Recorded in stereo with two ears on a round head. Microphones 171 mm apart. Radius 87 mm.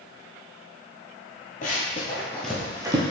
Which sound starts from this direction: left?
Running footsteps, at 1.6 s.